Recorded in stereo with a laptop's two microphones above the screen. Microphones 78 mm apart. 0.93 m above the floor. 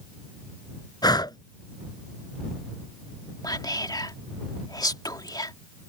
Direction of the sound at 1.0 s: 60° left (ahead or behind).